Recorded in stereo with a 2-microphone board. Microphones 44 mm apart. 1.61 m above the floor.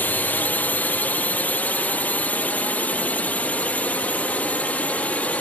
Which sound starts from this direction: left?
A drone, at 0.0 s.